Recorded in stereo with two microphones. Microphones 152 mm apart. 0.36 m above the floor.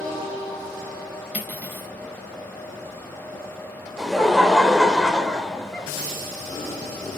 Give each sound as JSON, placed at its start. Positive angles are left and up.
{"t": 1.3, "sound": "cutlery clinking", "side_deg": -10, "distance_m": 1.9}
{"t": 4.0, "sound": "laughter", "side_deg": 0, "distance_m": 1.4}